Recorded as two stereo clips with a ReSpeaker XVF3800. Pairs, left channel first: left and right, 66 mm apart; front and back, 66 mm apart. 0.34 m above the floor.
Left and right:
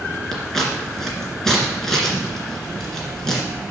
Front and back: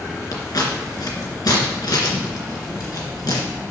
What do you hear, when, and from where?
0.3 s scissors: 5° left, 2.5 m